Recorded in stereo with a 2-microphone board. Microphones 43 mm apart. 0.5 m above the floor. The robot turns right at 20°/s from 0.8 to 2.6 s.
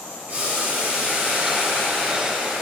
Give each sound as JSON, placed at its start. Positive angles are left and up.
{"t": 0.3, "sound": "boiling", "azimuth_deg": -145, "distance_m": 2.5}